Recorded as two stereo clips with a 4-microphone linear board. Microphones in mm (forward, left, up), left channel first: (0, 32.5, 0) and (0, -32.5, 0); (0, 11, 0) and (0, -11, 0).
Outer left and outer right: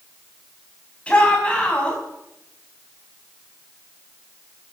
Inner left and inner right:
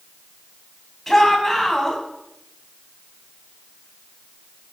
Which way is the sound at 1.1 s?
20° left (ahead or behind).